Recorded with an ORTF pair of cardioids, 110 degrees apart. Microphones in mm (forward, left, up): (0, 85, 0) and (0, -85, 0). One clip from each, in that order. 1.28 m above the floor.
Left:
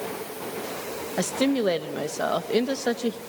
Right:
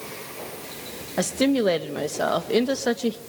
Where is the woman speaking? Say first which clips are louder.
Right 3 dB; 10° right, 1.4 m.